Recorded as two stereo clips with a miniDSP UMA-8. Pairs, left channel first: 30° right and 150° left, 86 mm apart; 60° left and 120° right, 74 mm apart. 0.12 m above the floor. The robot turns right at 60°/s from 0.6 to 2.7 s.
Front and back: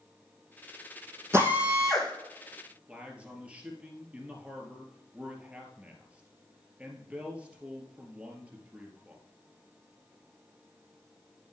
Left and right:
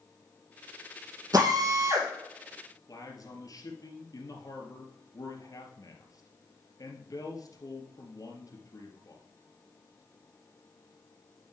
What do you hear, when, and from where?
1.3 s a drill: 155° right, 3.5 m; by 2.1 s 110° right, 3.5 m
2.9 s a man speaking: 75° left, 2.5 m